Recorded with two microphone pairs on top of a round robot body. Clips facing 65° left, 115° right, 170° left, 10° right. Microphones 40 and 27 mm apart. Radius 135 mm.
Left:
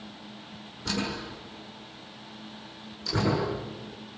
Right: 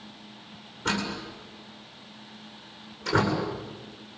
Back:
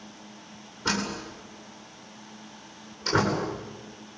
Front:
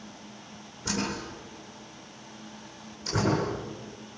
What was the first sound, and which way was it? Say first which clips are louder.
A door slam: right 2 dB, back 2 dB; 155° right.